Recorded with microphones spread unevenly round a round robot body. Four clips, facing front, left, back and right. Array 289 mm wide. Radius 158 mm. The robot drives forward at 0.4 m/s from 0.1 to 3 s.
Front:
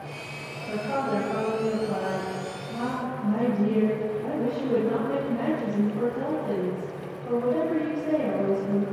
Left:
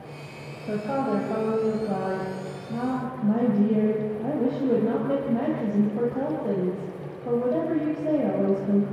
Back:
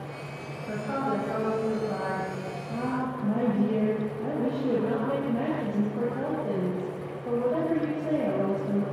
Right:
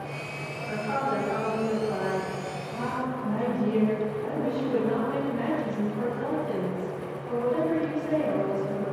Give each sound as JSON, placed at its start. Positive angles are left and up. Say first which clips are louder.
{"t": 0.7, "sound": "a woman speaking", "louder": "left 3 dB, front 2 dB", "azimuth_deg": 90, "distance_m": 4.0}